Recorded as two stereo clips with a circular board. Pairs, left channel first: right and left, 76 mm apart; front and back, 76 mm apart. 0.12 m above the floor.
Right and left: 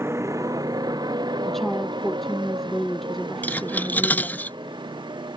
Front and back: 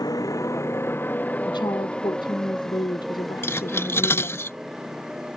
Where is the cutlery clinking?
35° right.